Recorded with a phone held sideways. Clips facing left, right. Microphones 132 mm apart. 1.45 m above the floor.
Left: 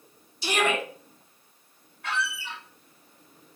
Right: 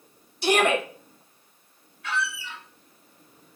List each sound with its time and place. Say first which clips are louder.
0.4 s a shout: right 5 dB; 60° right (ahead or behind), 3 m
2.0 s a squeak: right 1 dB; 55° left (ahead or behind), 1.9 m